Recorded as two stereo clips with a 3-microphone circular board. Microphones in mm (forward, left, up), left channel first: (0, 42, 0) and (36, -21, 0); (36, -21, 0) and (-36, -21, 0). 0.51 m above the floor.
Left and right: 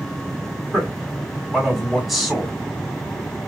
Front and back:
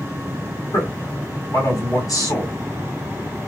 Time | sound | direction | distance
0.7 | a man speaking | 25° left | 3 m